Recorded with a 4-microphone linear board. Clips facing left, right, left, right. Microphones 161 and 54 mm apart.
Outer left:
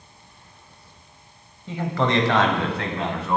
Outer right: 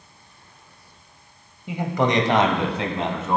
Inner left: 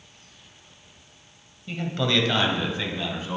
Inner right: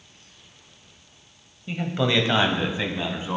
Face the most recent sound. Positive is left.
turn(degrees=-25)  # may be behind; listen again after turning